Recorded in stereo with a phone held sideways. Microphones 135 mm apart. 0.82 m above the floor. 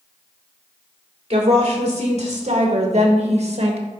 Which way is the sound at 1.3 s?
50° right (ahead or behind).